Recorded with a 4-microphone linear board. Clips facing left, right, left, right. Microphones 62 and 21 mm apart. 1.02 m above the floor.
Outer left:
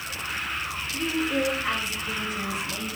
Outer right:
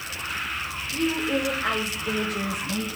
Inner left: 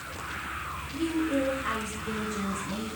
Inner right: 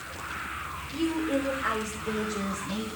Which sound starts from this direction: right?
A woman speaking, at 0.9 s.